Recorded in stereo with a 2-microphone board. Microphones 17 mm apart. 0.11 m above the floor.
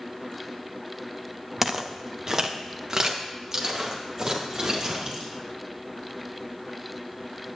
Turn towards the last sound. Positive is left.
turn(degrees=-30)  # may be behind; listen again after turning